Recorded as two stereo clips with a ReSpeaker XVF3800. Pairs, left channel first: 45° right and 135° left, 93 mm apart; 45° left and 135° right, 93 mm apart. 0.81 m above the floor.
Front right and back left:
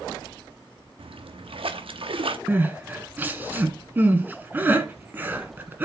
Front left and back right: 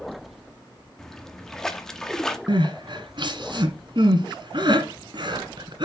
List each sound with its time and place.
1.0 s a splash: 130° left, 0.9 m
2.5 s crying: 160° right, 1.4 m